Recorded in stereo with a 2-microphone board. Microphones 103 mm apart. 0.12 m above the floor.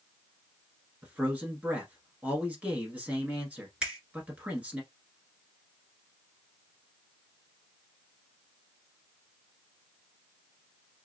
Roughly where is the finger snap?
Centre.